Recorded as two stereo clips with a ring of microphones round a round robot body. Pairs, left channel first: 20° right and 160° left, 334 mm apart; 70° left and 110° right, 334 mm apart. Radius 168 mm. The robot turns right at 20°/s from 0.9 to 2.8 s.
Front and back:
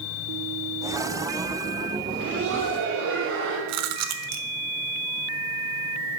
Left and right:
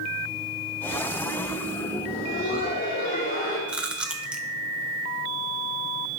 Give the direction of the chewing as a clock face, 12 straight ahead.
7 o'clock.